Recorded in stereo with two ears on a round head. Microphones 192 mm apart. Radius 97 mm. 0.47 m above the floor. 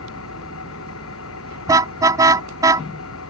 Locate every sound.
0.0 s an engine running: 75° left (ahead or behind)
1.7 s a car horn: 15° right (ahead or behind)